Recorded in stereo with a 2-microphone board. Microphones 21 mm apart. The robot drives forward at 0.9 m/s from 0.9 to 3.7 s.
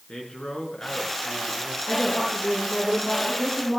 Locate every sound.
0.1 s a man speaking: 50° left (ahead or behind), 4.5 m; by 1.8 s 45° left (ahead or behind), 5 m
1.9 s a woman speaking: 45° left (ahead or behind), 8.5 m; by 3.8 s 35° left (ahead or behind), 9.5 m